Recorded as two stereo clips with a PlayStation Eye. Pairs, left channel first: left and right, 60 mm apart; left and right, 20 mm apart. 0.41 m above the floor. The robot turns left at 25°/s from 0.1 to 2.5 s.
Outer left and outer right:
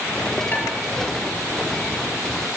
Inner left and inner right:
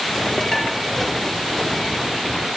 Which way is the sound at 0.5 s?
30° left (ahead or behind).